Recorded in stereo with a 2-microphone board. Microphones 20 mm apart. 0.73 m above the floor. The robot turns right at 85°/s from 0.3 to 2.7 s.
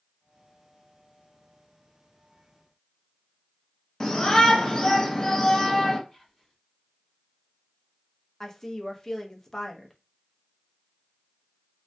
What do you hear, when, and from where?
4.0 s a shout: 30° left (ahead or behind), 0.5 m
6.1 s whispering: 15° left (ahead or behind), 0.7 m
8.4 s a woman speaking: 25° left (ahead or behind), 0.6 m